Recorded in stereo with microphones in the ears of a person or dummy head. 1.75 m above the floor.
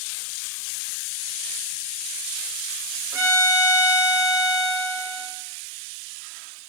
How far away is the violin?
About 0.7 m.